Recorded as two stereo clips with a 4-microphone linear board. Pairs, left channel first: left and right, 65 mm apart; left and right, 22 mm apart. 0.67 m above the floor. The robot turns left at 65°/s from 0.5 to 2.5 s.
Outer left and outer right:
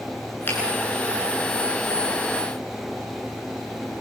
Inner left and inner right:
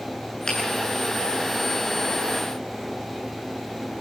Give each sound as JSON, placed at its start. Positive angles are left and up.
{"t": 0.5, "sound": "a finger snap", "side_deg": 35, "distance_m": 9.5}